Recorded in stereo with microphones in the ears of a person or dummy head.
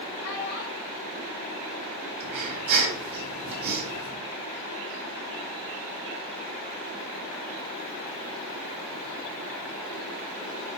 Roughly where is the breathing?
Right.